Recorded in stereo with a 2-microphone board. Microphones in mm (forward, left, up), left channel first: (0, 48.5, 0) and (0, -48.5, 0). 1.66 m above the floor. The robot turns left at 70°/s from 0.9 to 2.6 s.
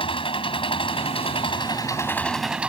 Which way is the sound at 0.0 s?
105° left.